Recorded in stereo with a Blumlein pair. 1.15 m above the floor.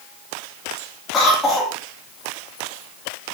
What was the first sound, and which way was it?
A cough, 10° left.